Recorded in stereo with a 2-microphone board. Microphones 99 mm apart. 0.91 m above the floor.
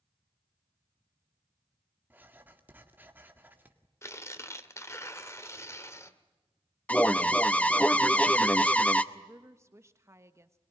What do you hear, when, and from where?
2.1 s writing: 20° right (ahead or behind), 1.9 m
4.0 s tearing paper: 30° left (ahead or behind), 1.3 m
6.9 s an alarm: 15° left (ahead or behind), 0.8 m
9.1 s a woman speaking: 30° right (ahead or behind), 1.3 m